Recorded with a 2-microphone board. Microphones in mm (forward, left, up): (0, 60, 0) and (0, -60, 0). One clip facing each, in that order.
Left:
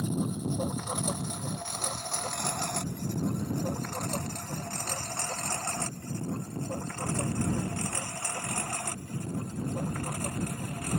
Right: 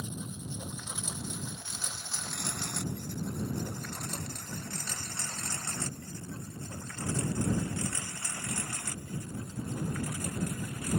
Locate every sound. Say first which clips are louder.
0.0 s a lawn mower: left 10 dB; 60° left (ahead or behind); by 11.0 s 55° left (ahead or behind)